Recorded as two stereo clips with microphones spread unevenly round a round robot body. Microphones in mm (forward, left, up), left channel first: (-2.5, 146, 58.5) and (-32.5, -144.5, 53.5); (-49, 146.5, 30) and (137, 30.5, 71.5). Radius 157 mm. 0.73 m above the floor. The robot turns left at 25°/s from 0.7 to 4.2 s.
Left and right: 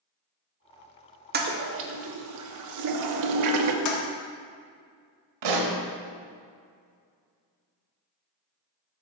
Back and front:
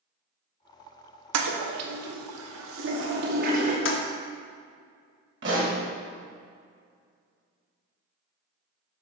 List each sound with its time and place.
1.3 s a toilet flushing: 40° right, 0.8 m; by 3.8 s 100° right, 0.8 m
3.9 s a toilet flushing: 120° left, 1.0 m; by 4.0 s 115° left, 1.0 m
5.4 s a pop: 85° right, 1.1 m